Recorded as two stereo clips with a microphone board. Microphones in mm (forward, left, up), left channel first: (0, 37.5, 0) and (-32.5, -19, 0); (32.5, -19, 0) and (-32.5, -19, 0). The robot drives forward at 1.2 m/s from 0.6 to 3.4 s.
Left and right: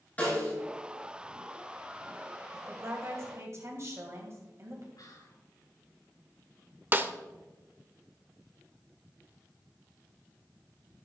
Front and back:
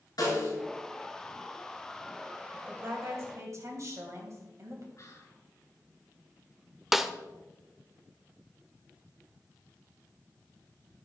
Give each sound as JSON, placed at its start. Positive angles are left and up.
{"t": 0.2, "sound": "a snare drum", "azimuth_deg": -5, "distance_m": 5.0}
{"t": 2.5, "sound": "a woman speaking", "azimuth_deg": -135, "distance_m": 1.9}
{"t": 5.0, "sound": "whispering", "azimuth_deg": 45, "distance_m": 4.0}
{"t": 6.9, "sound": "a snare drum", "azimuth_deg": -95, "distance_m": 0.5}